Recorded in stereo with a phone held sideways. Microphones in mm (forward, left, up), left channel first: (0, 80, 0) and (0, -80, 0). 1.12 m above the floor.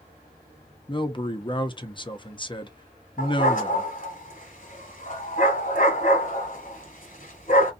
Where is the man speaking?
30° left (ahead or behind), 0.7 m.